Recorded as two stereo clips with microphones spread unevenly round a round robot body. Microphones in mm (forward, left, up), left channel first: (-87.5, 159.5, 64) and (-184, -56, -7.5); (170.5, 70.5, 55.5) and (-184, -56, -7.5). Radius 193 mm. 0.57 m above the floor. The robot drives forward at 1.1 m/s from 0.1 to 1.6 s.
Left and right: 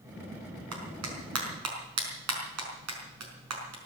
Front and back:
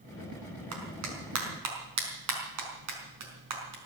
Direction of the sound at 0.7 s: 105° right.